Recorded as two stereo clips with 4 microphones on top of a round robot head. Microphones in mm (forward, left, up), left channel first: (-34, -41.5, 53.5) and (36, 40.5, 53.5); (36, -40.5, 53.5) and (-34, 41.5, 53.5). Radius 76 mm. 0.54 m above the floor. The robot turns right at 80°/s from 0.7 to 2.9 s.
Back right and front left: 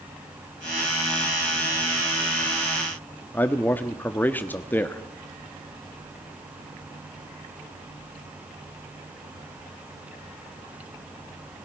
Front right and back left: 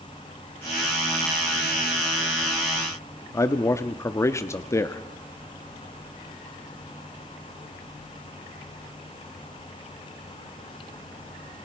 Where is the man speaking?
80° right, 1.2 m.